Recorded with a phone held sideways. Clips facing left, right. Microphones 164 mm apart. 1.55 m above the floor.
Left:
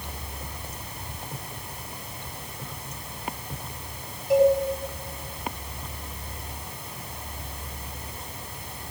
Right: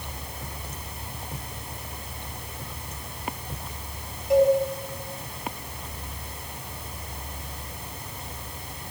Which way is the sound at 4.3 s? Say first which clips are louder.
Even; centre (ahead or behind).